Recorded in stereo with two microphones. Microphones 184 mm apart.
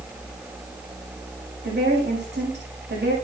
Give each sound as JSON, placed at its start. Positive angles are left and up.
{"t": 1.6, "sound": "a woman speaking", "side_deg": -85, "distance_m": 8.0}